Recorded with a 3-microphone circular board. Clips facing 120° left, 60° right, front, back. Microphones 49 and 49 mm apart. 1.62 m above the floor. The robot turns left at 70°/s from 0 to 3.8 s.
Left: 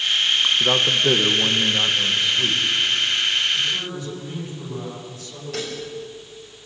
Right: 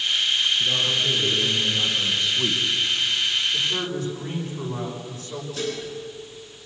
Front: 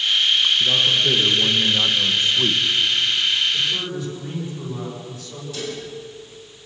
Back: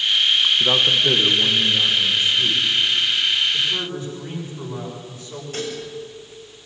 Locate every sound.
0.6 s a man speaking: 145° left, 2 m; by 2.6 s 5° left, 2 m
3.5 s a man speaking: 100° right, 7 m; by 5.4 s 120° right, 7 m
5.5 s dishes clattering: 135° left, 6.5 m